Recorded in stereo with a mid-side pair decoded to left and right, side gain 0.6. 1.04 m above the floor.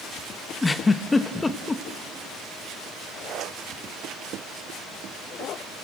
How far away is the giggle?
About 0.9 m.